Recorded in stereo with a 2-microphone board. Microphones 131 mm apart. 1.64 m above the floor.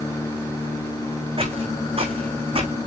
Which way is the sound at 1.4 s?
45° right (ahead or behind).